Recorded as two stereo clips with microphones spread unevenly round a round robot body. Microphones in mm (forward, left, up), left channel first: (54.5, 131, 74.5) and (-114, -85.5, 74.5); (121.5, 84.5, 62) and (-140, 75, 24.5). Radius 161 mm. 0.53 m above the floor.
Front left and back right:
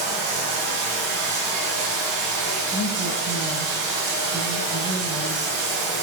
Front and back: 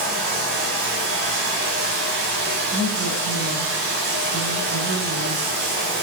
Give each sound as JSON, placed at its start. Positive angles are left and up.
{"t": 0.0, "sound": "running water", "azimuth_deg": -115, "distance_m": 0.7}
{"t": 2.7, "sound": "a woman speaking", "azimuth_deg": 165, "distance_m": 1.4}